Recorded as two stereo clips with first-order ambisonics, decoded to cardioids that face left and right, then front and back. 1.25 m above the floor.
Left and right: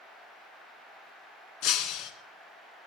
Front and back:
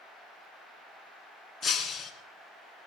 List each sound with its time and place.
1.6 s breaking glass: 75° left, 2.5 m